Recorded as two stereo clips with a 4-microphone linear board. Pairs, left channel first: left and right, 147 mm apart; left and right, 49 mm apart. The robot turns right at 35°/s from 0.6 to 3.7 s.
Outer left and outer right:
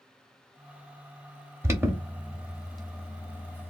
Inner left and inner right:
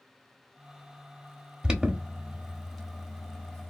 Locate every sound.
1.6 s an alarm: 20° right (ahead or behind), 0.9 m; by 3.7 s 15° left (ahead or behind), 0.9 m